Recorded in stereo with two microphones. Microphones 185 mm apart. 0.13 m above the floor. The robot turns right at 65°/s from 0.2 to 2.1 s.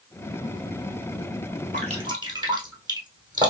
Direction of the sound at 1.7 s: 45° right (ahead or behind).